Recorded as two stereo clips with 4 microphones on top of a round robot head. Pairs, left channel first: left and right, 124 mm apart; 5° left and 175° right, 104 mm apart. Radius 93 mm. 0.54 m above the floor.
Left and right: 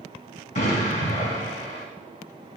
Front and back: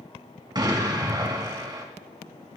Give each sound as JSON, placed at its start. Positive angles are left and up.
{"t": 0.6, "sound": "an explosion", "azimuth_deg": 135, "distance_m": 3.0}